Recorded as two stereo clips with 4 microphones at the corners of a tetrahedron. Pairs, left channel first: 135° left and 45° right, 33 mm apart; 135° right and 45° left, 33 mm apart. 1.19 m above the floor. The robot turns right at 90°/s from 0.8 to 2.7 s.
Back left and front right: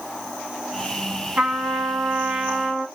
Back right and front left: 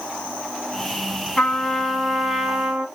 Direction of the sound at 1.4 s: 85° right.